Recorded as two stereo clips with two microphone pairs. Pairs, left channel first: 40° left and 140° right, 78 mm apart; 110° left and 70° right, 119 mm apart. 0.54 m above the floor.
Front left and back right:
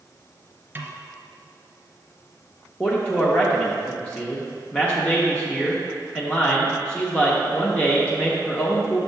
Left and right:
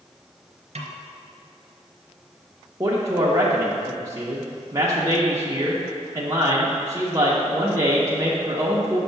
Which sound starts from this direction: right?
A snare drum, at 0.8 s.